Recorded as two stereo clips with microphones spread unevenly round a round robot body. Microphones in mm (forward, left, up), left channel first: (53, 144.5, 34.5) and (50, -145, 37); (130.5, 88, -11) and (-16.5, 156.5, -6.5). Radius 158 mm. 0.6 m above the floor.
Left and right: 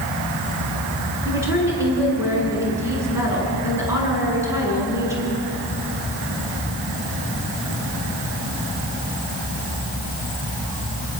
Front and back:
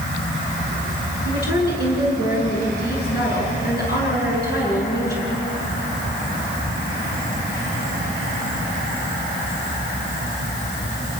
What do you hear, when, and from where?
1.2 s a woman speaking: 10° right, 8.5 m